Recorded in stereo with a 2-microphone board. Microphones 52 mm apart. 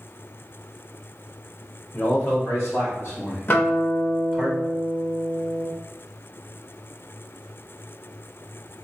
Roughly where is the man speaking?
Left.